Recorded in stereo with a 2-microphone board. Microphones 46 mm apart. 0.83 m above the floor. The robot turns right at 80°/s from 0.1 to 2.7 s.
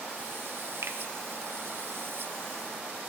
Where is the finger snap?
70° right (ahead or behind), 0.5 m; by 1.0 s 65° right (ahead or behind), 0.5 m.